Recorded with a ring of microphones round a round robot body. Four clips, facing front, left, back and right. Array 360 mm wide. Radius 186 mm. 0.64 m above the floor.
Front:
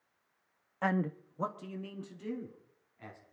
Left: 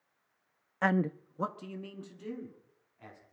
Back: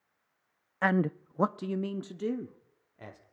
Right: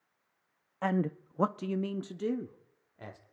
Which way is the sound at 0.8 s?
135° left.